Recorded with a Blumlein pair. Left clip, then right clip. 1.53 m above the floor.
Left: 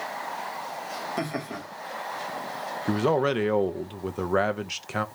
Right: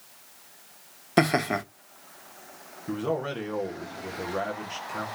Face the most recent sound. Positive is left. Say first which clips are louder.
# left 6 dB
turn(degrees=60)